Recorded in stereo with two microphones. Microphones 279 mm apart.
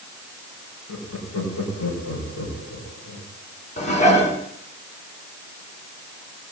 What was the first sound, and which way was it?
Laughter, 75° left (ahead or behind).